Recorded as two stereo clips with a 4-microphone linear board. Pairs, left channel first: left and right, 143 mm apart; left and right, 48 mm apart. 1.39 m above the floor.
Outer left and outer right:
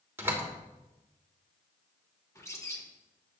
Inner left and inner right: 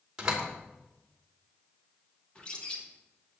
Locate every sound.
0.2 s a door slam: 15° right (ahead or behind), 3 m
2.4 s a bird: 20° left (ahead or behind), 2.5 m